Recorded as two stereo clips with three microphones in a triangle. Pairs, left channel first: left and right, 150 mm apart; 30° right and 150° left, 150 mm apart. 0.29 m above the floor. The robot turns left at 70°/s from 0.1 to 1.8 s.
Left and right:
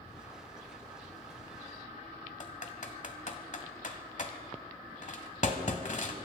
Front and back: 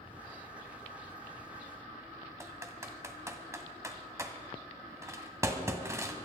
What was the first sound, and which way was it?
Typing on a keyboard, 85° left.